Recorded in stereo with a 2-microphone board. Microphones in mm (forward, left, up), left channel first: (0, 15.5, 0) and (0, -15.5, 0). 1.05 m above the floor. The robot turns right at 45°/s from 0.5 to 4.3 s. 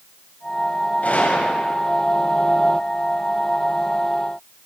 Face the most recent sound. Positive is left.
turn(degrees=-165)